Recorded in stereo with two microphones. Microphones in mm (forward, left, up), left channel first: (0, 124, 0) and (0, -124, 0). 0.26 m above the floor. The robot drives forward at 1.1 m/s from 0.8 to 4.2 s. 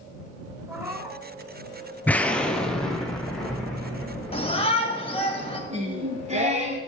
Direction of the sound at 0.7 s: 10° right (ahead or behind).